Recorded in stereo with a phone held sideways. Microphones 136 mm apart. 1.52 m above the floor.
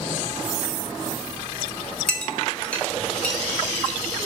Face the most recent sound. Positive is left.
turn(degrees=10)  # may be behind; listen again after turning